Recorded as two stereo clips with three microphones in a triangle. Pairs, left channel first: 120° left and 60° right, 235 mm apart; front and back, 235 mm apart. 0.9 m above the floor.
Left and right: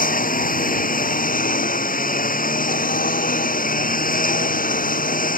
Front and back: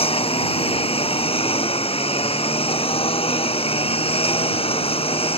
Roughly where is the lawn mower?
Ahead left.